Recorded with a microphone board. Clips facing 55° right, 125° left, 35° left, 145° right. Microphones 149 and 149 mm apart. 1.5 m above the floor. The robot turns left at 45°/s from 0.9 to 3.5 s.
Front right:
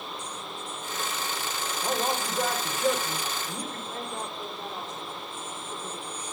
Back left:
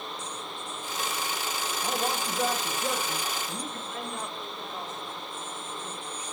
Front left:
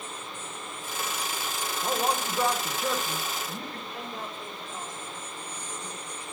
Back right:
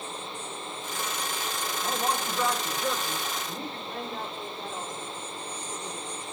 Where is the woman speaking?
110° right, 5 m.